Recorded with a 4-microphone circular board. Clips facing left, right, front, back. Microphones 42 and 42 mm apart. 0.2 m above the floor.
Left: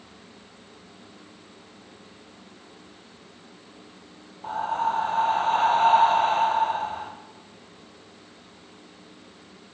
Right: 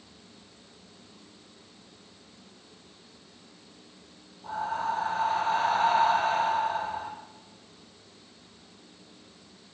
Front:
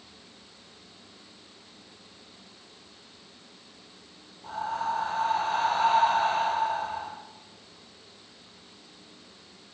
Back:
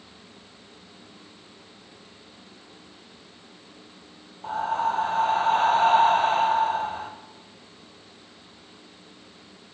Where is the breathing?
130° left, 2.5 m.